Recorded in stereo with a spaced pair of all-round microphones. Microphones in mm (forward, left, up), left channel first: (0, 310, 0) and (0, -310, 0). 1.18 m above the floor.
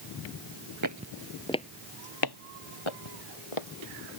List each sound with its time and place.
0.8 s footsteps: 30° right (ahead or behind); by 3.7 s 55° left (ahead or behind)